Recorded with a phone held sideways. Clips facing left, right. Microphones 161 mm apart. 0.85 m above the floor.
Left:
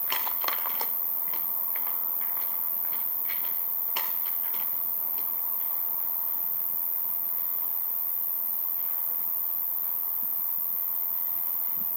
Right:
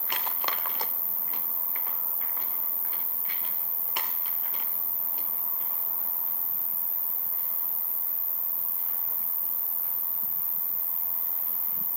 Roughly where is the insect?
Left.